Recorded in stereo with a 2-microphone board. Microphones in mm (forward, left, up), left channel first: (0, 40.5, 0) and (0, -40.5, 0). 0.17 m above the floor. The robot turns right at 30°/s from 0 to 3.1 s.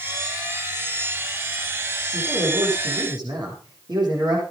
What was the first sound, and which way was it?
A man speaking, 80° right.